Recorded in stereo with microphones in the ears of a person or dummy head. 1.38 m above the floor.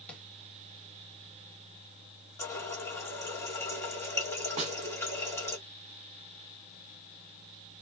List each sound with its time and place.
0.1 s tapping: centre (ahead or behind), 1.4 m
2.4 s a running tap: 10° left (ahead or behind), 2 m
4.6 s a snare drum: 35° right (ahead or behind), 1.4 m